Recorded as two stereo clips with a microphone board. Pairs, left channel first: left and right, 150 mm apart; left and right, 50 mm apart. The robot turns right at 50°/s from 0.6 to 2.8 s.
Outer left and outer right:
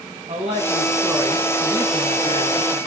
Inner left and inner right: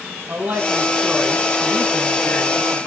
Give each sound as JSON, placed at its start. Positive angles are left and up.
{"t": 0.3, "sound": "a woman speaking", "azimuth_deg": -45, "distance_m": 4.0}